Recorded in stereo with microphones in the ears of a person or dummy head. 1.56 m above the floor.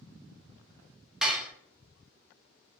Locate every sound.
1.2 s dishes clattering: 5° right (ahead or behind), 0.7 m